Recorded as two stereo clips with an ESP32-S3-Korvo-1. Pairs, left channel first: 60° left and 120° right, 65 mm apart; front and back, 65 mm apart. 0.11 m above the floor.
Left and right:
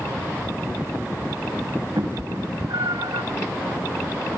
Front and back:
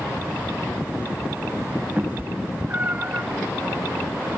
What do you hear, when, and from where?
2.0 s a cat meowing: 115° right